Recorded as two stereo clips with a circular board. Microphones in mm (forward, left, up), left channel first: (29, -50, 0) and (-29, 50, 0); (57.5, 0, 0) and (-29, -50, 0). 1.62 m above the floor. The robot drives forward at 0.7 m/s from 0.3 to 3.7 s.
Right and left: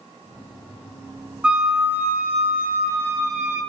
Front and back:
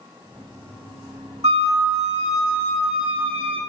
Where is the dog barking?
I don't hear a dog barking.